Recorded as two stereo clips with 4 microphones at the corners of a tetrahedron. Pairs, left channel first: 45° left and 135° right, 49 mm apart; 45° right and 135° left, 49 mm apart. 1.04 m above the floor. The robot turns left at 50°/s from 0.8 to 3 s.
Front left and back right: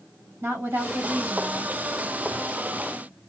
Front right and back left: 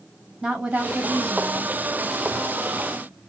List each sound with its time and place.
0.4 s a woman speaking: 160° right, 1.6 m; by 1.7 s 155° left, 1.6 m